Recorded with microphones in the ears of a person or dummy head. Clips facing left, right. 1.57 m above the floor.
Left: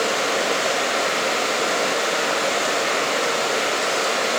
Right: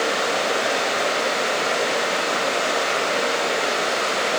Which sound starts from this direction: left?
Running water, at 0.0 s.